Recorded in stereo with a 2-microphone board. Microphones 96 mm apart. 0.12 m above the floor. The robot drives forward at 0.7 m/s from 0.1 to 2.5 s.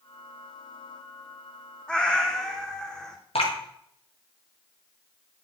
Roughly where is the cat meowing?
Centre.